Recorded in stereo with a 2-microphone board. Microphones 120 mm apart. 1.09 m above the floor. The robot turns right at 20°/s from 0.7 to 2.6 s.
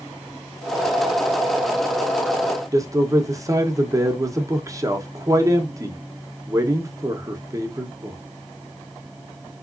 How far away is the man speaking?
About 0.8 m.